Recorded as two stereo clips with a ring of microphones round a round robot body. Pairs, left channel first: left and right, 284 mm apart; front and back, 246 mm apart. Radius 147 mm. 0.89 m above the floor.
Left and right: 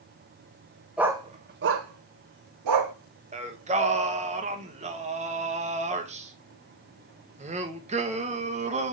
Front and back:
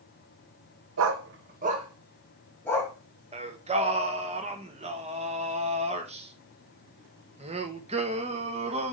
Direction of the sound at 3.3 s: 135° right.